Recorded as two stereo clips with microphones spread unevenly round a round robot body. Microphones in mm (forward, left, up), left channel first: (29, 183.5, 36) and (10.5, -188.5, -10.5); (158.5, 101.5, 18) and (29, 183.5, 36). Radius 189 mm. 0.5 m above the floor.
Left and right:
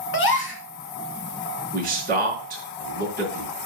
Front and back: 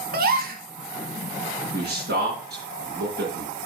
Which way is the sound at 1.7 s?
160° right.